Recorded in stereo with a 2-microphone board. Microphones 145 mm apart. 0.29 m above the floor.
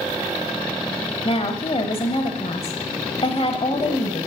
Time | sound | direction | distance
1.2 | a woman speaking | 45° left (ahead or behind) | 1.1 m